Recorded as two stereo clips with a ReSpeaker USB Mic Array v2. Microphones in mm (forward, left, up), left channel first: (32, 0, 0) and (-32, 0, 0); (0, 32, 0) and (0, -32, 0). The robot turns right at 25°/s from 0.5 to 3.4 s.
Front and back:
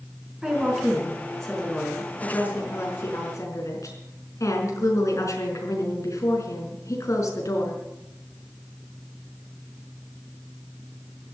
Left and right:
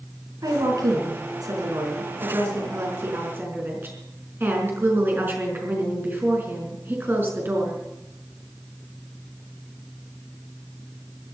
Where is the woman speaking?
105° right, 4.5 m; by 7.8 s 35° right, 4.5 m.